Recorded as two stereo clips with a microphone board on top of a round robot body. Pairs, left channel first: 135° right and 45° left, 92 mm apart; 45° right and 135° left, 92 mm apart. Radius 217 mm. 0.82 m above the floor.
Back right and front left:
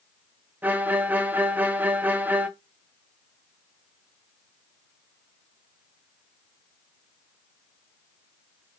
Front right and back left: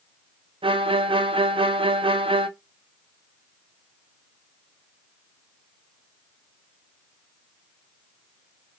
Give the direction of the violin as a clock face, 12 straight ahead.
8 o'clock.